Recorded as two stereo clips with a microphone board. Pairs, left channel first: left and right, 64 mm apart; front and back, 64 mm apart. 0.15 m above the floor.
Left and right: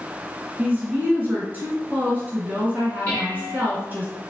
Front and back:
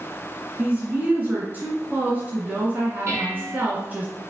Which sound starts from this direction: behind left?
Dishes clattering, at 3.1 s.